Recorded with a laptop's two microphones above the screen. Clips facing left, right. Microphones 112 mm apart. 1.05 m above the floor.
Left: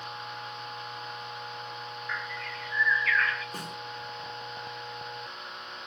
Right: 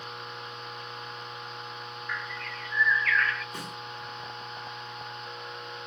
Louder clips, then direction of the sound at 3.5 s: Even; 40° left (ahead or behind).